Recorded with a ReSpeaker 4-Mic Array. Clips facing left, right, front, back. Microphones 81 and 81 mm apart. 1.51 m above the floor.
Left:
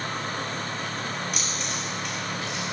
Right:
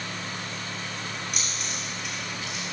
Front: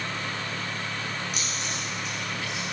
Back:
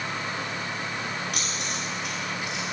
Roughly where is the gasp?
No gasp in this recording.